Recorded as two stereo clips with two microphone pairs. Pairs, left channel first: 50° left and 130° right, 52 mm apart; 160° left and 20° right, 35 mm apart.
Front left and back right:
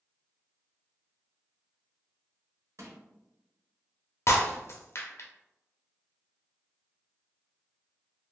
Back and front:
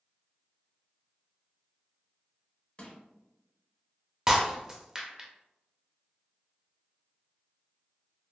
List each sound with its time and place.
2.8 s crushing: 145° right, 0.9 m
4.3 s breaking glass: 45° left, 0.5 m